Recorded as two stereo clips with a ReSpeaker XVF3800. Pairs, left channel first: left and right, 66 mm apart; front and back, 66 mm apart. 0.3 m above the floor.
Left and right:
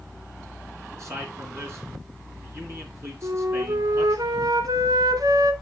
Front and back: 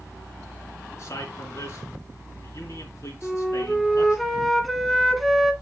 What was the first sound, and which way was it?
A man speaking, 45° right.